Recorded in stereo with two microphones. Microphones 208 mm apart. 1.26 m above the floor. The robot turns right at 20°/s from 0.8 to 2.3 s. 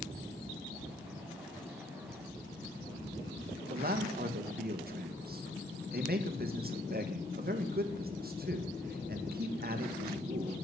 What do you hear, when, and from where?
3.7 s a man speaking: 50° right (ahead or behind), 1.6 m